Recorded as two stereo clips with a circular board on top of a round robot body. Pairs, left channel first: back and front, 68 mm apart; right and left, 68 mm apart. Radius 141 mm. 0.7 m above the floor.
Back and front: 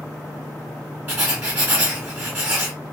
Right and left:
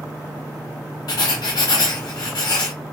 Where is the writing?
60° right, 0.8 m.